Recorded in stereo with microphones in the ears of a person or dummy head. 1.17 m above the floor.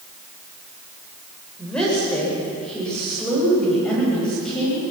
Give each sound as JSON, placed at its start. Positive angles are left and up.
{"t": 1.6, "sound": "a woman speaking", "side_deg": 10, "distance_m": 4.5}